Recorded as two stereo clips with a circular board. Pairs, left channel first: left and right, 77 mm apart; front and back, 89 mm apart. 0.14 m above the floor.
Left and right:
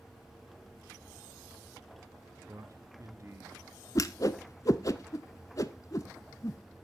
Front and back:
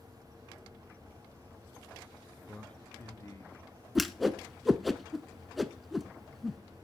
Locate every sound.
2.5 s a man speaking: 85° right, 1.4 m; by 3.6 s 40° right, 2 m
4.0 s a whoosh: 90° left, 0.6 m